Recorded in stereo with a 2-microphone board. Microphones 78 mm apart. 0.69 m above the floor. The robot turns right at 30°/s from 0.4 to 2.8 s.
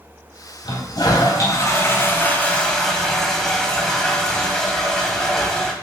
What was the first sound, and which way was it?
A toilet flushing, 105° left.